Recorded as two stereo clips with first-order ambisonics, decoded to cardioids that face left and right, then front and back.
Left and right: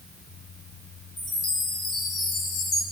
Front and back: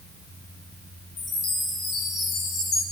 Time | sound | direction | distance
1.2 | a chime | 55° left | 5.5 m